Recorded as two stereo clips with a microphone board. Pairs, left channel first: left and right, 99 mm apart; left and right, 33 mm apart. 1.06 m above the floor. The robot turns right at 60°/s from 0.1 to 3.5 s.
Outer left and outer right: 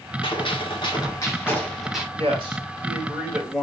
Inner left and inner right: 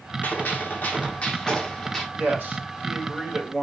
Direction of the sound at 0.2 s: 80° left.